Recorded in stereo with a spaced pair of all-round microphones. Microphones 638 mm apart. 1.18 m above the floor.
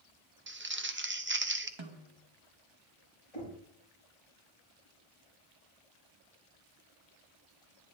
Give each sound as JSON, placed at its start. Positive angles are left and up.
{"t": 0.5, "sound": "crumpling", "side_deg": -20, "distance_m": 0.6}
{"t": 1.8, "sound": "a snare drum", "side_deg": -45, "distance_m": 1.2}
{"t": 3.3, "sound": "knocking", "side_deg": 60, "distance_m": 5.0}